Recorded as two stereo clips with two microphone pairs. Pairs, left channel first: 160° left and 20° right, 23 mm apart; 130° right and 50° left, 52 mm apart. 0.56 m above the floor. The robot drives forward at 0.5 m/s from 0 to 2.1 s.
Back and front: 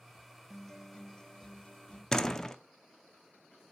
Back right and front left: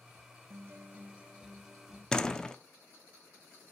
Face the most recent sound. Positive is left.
turn(degrees=-175)